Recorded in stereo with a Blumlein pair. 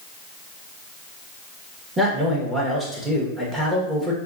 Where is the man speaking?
5° right, 1.3 m.